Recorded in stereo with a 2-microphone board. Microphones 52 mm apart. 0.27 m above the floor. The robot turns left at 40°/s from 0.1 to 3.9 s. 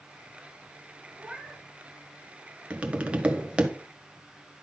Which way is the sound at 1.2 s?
15° right (ahead or behind).